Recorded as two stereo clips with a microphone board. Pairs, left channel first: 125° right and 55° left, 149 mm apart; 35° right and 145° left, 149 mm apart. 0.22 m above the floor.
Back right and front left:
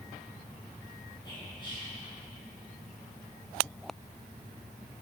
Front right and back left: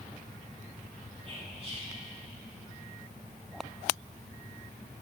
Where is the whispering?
175° right, 2 m.